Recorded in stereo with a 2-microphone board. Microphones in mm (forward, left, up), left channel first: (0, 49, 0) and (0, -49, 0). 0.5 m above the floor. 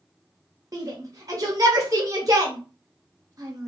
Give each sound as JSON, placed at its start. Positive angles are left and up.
{"t": 0.7, "sound": "a shout", "side_deg": -35, "distance_m": 0.9}